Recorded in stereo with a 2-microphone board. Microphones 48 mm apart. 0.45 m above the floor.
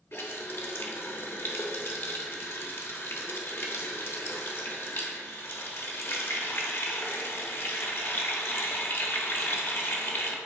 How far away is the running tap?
About 0.9 m.